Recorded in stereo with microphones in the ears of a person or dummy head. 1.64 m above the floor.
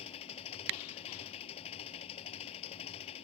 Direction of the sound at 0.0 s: 35° left (ahead or behind).